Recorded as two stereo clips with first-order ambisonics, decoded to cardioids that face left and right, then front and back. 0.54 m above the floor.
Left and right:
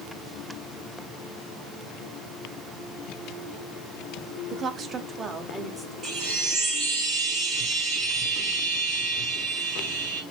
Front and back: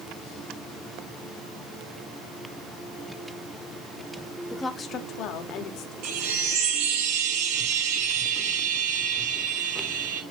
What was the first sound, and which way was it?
A woman speaking, 85° right.